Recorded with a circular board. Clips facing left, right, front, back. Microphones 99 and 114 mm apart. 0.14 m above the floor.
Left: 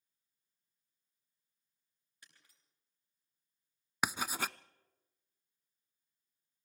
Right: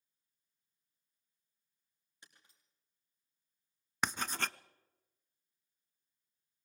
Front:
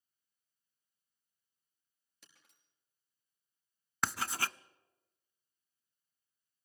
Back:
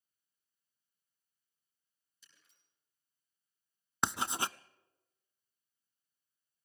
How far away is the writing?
About 0.5 m.